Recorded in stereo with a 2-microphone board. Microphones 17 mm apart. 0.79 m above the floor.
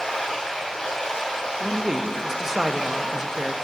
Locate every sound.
0.0 s running water: 85° left, 3.5 m
1.6 s a man speaking: 25° right (ahead or behind), 0.7 m